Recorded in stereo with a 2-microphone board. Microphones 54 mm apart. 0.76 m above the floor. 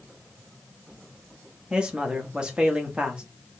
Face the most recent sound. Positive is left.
turn(degrees=-20)  # may be behind; listen again after turning